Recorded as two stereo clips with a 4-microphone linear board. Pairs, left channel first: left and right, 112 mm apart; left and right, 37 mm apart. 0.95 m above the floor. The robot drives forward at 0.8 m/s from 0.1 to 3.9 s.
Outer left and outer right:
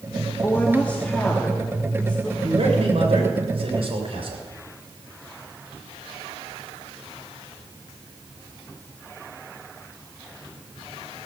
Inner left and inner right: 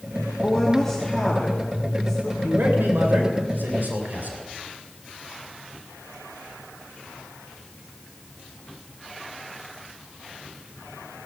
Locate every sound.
0.4 s a woman speaking: 20° left (ahead or behind), 1.1 m; by 2.3 s 5° left (ahead or behind), 2.5 m
2.4 s a man speaking: 75° right (ahead or behind), 3 m; by 4.4 s 60° right (ahead or behind), 3.5 m